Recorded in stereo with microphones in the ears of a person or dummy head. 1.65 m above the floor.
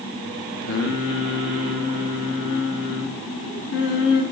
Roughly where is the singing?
Left.